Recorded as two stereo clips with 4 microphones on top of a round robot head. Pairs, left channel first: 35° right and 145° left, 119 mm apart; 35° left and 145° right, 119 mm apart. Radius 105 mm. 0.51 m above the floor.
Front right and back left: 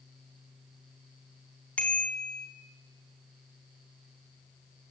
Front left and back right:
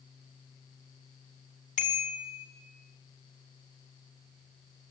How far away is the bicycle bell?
About 4 m.